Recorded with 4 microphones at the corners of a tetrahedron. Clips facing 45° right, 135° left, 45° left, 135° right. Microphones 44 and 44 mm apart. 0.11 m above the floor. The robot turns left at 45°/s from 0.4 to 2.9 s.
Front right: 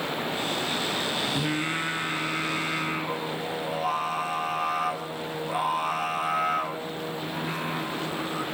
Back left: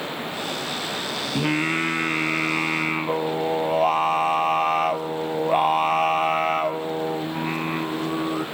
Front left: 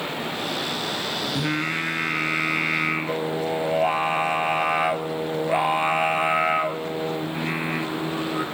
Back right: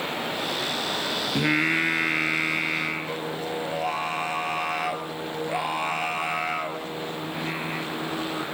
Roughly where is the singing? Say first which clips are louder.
Back left 5 dB, back right 5 dB; behind.